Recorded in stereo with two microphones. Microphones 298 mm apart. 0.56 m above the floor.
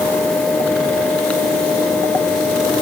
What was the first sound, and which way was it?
Only background noise.